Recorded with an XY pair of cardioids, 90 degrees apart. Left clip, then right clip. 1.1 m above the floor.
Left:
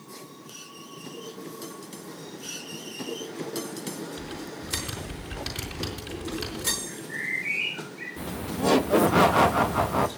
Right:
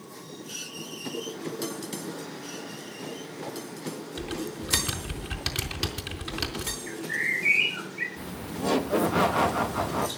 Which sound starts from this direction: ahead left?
Laughter, at 8.2 s.